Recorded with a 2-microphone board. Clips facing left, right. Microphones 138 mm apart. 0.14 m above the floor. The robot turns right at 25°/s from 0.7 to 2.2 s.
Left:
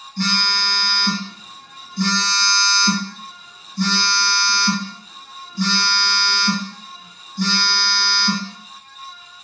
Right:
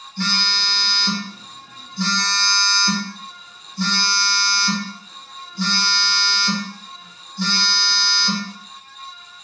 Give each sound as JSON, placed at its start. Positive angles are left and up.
{"t": 0.2, "sound": "a phone buzzing", "azimuth_deg": 70, "distance_m": 2.0}